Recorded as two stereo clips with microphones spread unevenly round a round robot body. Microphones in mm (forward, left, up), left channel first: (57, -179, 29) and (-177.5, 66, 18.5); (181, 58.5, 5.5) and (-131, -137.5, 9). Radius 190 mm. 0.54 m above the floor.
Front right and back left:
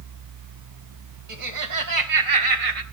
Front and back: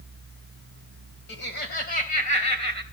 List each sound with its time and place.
1.3 s laughter: 95° left, 3.5 m; by 2.8 s 110° left, 3 m